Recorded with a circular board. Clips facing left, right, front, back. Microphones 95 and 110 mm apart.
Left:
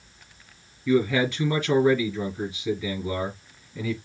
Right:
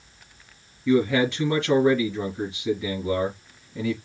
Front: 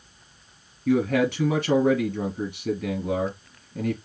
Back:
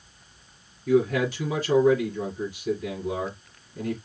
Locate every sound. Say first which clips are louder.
0.9 s a man speaking: right 1 dB, even; 20° right, 4 m